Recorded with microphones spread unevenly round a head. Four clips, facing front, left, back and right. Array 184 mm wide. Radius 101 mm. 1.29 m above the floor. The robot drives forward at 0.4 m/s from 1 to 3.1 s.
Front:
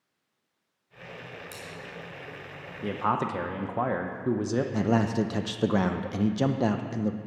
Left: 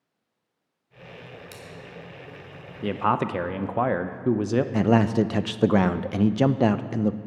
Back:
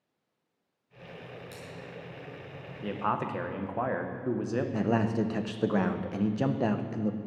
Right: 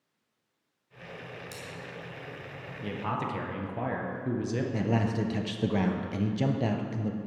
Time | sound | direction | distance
1.5 | scissors | 45° left | 2.5 m
2.8 | a man speaking | 55° left | 0.7 m
4.7 | a man speaking | 70° left | 0.5 m